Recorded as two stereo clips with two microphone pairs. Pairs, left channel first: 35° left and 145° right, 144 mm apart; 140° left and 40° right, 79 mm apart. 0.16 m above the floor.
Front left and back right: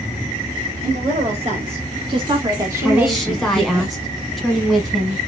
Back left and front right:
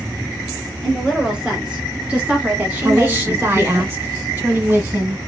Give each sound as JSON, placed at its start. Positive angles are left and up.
{"t": 0.8, "sound": "a woman speaking", "azimuth_deg": -120, "distance_m": 2.0}
{"t": 2.8, "sound": "a woman speaking", "azimuth_deg": -50, "distance_m": 1.2}